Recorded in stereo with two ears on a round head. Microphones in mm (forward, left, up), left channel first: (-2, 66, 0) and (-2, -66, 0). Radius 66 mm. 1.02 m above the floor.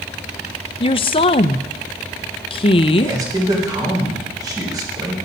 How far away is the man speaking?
About 3.5 m.